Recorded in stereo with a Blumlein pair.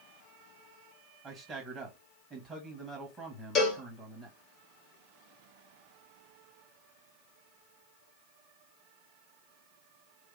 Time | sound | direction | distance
1.2 | a man speaking | 15° right | 1.4 m
3.5 | a cowbell | 30° left | 1.5 m